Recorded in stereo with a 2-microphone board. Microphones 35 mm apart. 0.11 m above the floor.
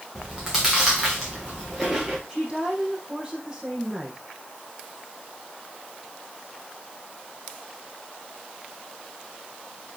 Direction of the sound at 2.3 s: 20° right (ahead or behind).